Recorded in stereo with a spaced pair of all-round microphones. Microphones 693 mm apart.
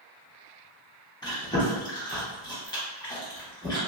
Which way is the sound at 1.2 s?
5° left (ahead or behind).